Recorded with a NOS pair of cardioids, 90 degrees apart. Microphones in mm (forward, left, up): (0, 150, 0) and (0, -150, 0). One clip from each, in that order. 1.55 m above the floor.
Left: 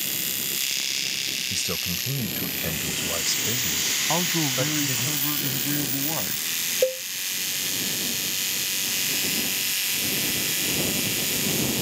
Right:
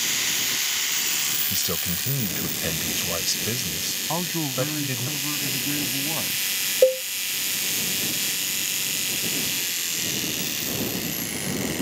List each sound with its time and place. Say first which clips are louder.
1.5 s a man speaking: even; 15° right
4.1 s a man speaking: left 3 dB; 10° left
6.8 s a cowbell: right 7 dB; 25° right